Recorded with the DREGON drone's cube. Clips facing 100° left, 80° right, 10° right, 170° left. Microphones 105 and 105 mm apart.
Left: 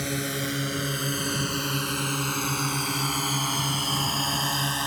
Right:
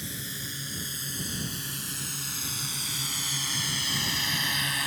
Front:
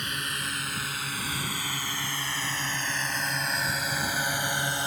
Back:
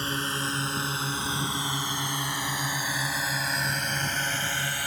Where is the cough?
No cough in this recording.